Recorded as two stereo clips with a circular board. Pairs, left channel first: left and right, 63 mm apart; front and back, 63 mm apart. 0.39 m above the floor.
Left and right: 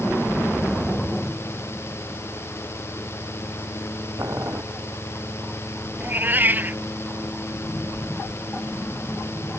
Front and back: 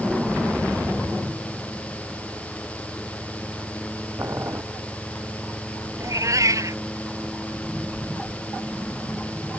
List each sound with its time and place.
4.2 s boiling: 135° right
6.0 s a cat meowing: 150° right